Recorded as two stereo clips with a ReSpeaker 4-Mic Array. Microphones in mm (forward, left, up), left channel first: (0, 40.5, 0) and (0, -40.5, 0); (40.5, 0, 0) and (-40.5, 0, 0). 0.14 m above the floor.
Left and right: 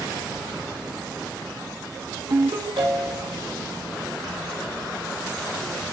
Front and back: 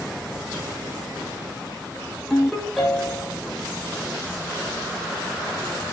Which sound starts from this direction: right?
A ringtone, at 2.3 s.